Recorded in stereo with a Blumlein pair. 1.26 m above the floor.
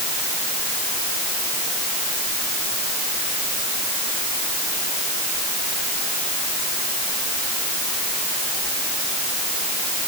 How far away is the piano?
No piano in this recording.